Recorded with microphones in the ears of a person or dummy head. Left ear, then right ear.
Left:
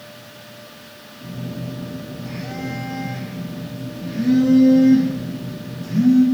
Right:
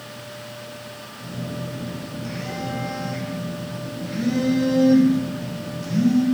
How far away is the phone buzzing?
About 1.8 m.